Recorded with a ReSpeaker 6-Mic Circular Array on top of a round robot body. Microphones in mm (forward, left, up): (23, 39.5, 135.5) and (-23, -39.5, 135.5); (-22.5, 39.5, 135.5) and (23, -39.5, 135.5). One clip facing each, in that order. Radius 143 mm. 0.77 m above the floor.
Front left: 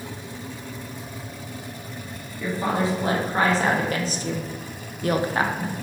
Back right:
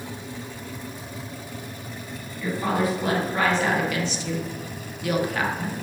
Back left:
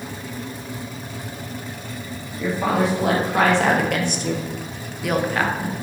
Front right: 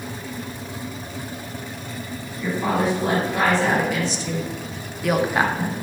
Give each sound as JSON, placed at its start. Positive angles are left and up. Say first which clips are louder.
{"t": 2.4, "sound": "a woman speaking", "louder": "even, back left 1 dB", "azimuth_deg": 125, "distance_m": 1.5}